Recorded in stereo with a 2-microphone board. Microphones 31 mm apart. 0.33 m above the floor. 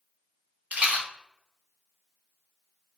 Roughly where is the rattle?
Right.